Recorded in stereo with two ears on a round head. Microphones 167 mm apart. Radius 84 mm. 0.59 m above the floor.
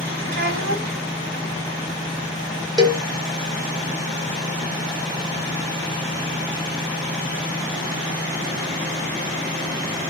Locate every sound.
0.3 s a child speaking: 55° right (ahead or behind), 1.5 m
2.8 s a cowbell: 20° right (ahead or behind), 0.6 m